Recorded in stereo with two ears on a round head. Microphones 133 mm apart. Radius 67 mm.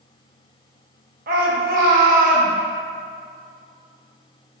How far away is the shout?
About 1.1 m.